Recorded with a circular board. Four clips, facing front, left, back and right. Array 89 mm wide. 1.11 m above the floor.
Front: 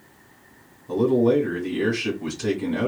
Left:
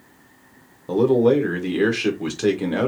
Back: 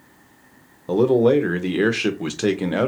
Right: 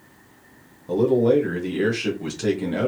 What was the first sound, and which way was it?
A man speaking, 160° left.